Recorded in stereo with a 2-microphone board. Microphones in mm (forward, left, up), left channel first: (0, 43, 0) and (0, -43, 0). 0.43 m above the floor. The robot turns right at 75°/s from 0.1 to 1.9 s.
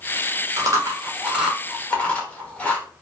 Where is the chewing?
40° right (ahead or behind), 1.0 m; by 2.9 s 15° left (ahead or behind), 1.0 m.